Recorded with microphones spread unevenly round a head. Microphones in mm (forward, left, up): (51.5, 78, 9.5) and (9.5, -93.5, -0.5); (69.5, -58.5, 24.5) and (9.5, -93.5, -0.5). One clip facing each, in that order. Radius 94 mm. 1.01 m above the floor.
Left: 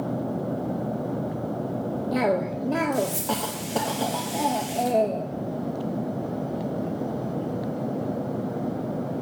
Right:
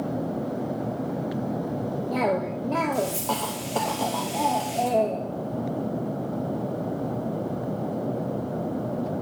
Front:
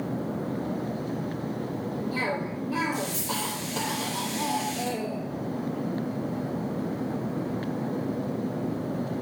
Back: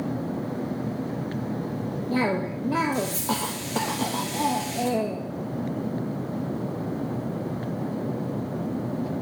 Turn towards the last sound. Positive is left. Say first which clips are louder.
# left 2 dB, back 8 dB
turn(degrees=155)